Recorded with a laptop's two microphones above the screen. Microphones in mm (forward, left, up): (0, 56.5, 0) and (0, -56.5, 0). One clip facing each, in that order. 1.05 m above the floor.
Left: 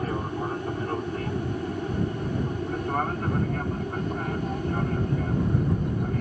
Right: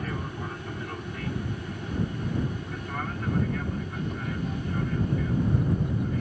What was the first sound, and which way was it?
An aircraft, 35° left (ahead or behind).